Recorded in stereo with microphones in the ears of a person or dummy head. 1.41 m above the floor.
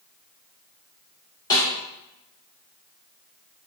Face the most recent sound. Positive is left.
turn(degrees=20)  # may be behind; listen again after turning